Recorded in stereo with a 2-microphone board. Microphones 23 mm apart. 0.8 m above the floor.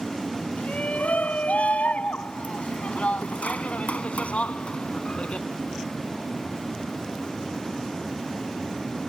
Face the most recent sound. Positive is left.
turn(degrees=60)  # may be behind; listen again after turning